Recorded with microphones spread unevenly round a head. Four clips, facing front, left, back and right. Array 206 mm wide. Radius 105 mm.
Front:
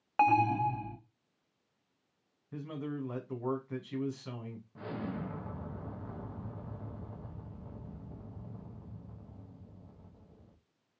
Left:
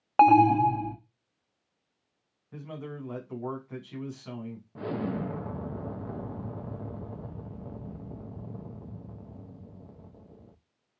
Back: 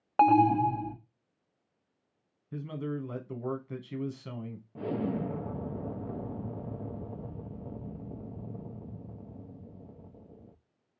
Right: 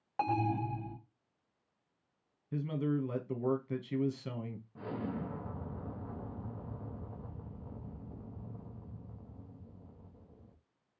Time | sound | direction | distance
0.2 | an alarm | 115° left | 0.7 m
2.5 | a man speaking | 125° right | 1.3 m
4.8 | an explosion | 140° left | 0.6 m